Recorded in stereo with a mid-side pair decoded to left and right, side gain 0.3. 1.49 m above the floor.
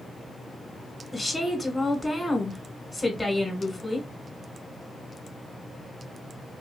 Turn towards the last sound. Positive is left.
turn(degrees=15)